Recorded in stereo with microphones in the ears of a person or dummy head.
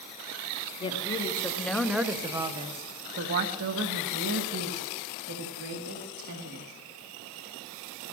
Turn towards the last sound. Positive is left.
turn(degrees=-80)